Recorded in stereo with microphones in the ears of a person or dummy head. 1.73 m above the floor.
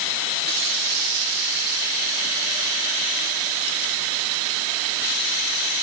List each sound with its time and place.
Only background noise.